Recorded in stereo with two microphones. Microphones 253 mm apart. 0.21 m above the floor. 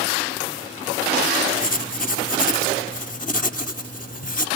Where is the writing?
35° left (ahead or behind), 0.7 m.